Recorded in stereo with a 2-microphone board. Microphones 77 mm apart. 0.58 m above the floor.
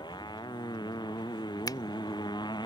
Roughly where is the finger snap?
Left.